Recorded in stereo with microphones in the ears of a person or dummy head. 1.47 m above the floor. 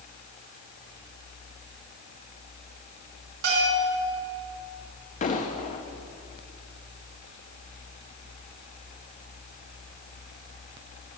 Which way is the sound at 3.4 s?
80° right.